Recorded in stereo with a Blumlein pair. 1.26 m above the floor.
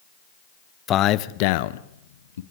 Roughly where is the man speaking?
Ahead left.